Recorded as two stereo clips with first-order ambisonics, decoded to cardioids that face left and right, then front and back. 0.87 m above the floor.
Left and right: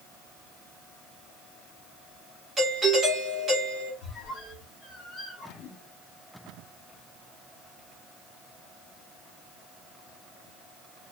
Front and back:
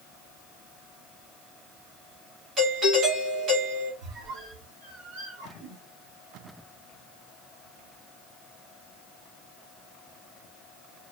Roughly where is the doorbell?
Behind right.